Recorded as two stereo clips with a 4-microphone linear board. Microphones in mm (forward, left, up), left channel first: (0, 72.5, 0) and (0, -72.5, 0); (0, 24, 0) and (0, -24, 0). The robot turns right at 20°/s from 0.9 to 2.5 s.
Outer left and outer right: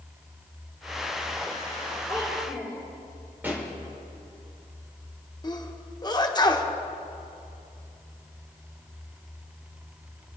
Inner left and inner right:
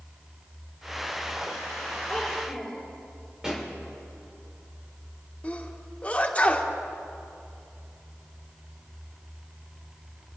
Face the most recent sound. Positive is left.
turn(degrees=25)  # may be behind; listen again after turning